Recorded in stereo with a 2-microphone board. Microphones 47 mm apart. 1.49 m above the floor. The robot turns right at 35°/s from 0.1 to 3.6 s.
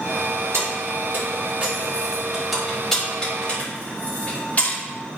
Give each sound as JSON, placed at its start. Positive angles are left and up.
{"t": 0.5, "sound": "keys jangling", "side_deg": -70, "distance_m": 2.5}